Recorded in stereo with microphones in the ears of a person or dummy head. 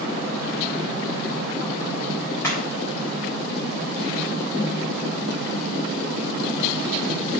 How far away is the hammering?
About 3.5 m.